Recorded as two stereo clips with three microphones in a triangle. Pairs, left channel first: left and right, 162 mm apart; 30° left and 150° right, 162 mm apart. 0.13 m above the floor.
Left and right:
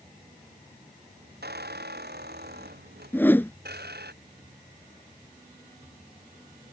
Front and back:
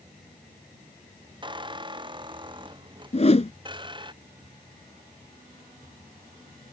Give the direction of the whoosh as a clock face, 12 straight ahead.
11 o'clock.